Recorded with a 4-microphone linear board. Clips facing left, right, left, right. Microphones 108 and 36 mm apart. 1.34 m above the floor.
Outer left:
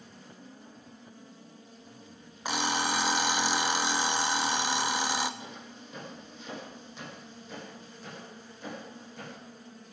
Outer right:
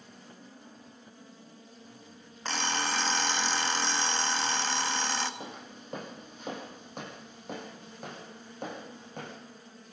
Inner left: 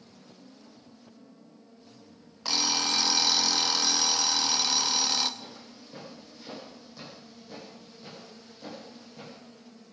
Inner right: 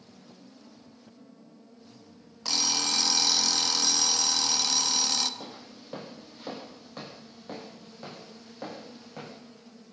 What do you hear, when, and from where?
2.5 s an alarm clock: 10° left (ahead or behind), 0.9 m
5.4 s footsteps: 45° right (ahead or behind), 3.5 m; by 9.4 s 60° right (ahead or behind), 5.5 m